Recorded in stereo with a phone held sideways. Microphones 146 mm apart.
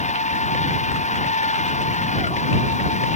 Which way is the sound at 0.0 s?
60° left (ahead or behind).